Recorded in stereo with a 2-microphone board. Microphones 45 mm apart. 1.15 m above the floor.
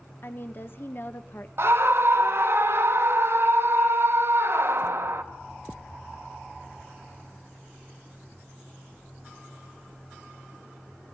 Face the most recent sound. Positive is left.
turn(degrees=-60)  # may be behind; listen again after turning